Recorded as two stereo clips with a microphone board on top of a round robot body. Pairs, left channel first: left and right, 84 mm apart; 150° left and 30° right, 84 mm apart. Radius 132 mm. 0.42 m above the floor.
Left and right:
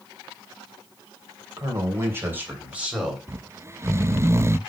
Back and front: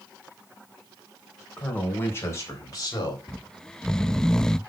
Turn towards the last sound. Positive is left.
turn(degrees=-135)